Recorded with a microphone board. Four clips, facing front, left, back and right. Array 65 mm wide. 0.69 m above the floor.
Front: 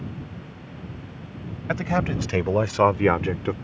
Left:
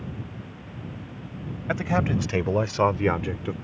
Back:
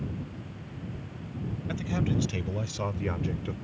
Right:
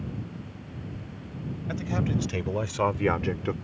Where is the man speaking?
40° left; by 3.5 s 25° right.